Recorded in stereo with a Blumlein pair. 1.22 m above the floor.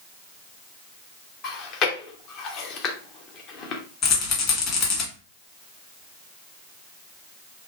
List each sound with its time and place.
1.4 s chewing: 35° left, 0.8 m
4.0 s a rattle: 30° left, 1.5 m